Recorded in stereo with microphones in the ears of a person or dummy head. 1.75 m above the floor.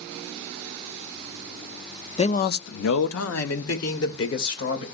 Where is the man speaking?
30° left (ahead or behind), 0.5 m; by 4.8 s 65° left (ahead or behind), 2.0 m.